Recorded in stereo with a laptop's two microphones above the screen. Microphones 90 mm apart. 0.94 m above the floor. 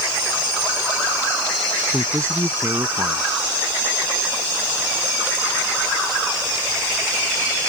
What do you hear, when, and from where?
1.9 s a man speaking: 35° right (ahead or behind)